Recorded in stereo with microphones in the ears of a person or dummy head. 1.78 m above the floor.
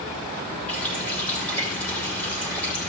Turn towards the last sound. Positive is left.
turn(degrees=10)  # may be behind; listen again after turning